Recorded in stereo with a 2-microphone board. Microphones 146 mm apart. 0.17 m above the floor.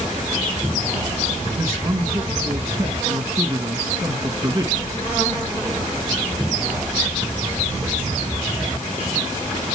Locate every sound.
1.6 s a man speaking: 25° right (ahead or behind), 2 m